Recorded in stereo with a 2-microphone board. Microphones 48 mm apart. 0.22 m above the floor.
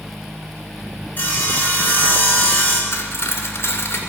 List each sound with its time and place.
1.2 s sawing: 35° left (ahead or behind), 2.5 m
2.9 s cutlery clinking: 60° left (ahead or behind), 1.8 m